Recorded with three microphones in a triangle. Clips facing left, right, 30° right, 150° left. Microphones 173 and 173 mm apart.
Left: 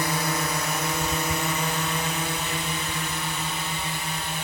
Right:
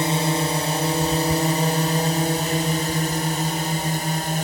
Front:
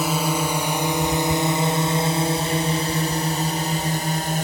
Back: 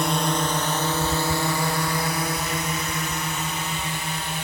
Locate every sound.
0.0 s a drone: 110° right; by 4.4 s 60° right